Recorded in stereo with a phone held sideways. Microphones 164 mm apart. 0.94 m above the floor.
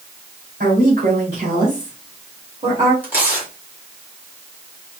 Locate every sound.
0.6 s a woman speaking: 60° right (ahead or behind), 2.5 m; by 2.9 s 30° right (ahead or behind), 2 m
3.0 s tearing paper: 10° right (ahead or behind), 2 m